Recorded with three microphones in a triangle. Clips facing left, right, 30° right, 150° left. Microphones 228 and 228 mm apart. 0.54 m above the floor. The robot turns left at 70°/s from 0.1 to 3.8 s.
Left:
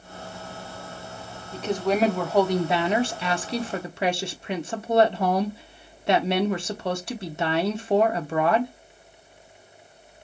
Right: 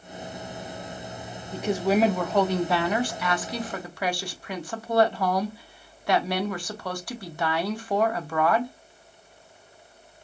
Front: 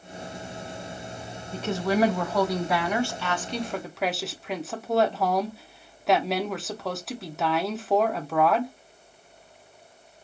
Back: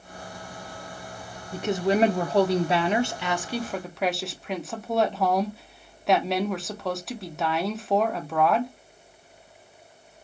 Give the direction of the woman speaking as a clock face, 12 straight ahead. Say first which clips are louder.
Right 1 dB, back 2 dB; 5 o'clock.